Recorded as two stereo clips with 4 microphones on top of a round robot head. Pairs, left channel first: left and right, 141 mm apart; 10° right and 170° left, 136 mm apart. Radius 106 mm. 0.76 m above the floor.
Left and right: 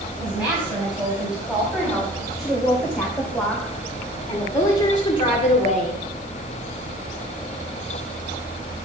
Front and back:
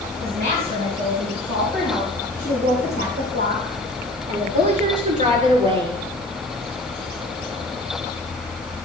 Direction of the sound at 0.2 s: 170° right.